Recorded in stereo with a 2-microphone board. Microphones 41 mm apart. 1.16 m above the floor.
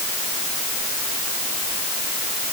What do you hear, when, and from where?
Only background noise.